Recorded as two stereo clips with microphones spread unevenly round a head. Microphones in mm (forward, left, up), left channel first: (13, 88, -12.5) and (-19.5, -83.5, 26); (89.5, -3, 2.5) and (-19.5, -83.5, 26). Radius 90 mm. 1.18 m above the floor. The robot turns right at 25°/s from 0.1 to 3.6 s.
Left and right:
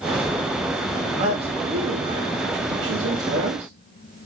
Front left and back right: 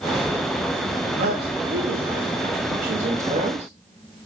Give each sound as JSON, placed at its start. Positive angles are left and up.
{"t": 1.2, "sound": "a man speaking", "azimuth_deg": -155, "distance_m": 2.5}